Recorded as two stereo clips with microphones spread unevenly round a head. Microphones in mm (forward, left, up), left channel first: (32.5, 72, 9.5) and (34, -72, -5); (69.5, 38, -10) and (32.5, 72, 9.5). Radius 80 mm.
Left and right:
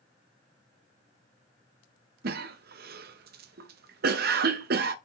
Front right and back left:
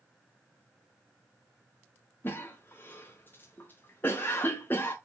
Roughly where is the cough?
Right.